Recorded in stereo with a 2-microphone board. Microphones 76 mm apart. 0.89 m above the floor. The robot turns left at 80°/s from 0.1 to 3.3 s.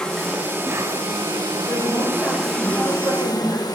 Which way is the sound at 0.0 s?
10° left.